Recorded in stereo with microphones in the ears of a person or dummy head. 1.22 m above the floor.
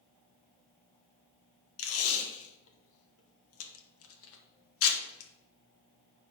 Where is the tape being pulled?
70° left (ahead or behind), 1.6 m.